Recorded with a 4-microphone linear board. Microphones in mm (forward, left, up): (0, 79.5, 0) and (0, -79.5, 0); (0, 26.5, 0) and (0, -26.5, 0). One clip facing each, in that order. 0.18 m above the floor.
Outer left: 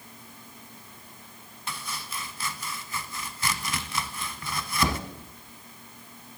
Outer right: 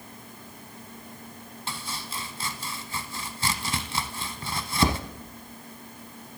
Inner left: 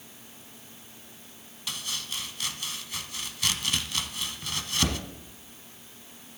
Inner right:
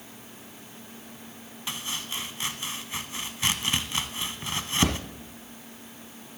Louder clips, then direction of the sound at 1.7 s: Even, inner right 2 dB; 30° right (ahead or behind).